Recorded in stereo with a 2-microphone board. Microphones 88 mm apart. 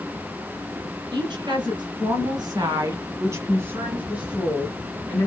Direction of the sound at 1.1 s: 55° right (ahead or behind).